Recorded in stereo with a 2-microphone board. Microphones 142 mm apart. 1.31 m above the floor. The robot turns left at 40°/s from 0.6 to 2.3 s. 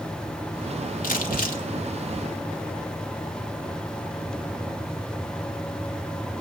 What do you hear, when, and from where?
1.0 s crumpling: 80° left, 2.0 m; by 1.6 s 75° left (ahead or behind), 2.0 m